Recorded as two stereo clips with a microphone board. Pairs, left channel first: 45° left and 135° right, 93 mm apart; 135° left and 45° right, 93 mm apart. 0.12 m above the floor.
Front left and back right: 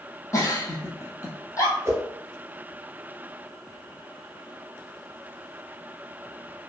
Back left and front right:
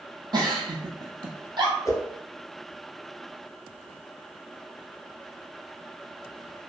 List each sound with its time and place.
0.3 s a giggle: 10° right, 0.7 m
1.9 s a whoosh: 175° left, 0.7 m